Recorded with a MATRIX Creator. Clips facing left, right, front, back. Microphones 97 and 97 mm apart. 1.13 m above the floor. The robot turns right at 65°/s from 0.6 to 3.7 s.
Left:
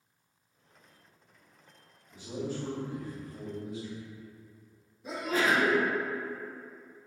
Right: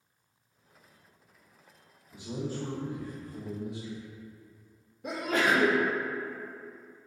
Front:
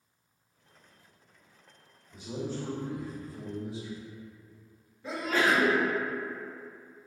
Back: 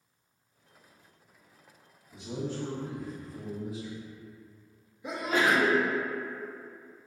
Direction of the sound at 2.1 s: 170° right.